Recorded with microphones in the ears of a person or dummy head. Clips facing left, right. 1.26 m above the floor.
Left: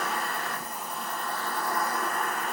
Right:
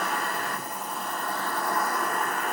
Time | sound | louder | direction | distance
0.0 | an insect | right 2 dB | 45° right (ahead or behind) | 0.7 m